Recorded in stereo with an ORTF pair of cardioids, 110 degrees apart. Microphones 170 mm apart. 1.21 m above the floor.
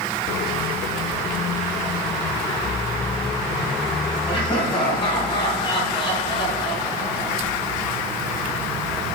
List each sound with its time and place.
4.3 s laughter: 35° left, 3 m